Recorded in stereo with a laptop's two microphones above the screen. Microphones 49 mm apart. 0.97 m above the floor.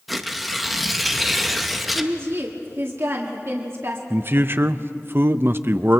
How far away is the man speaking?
About 0.5 m.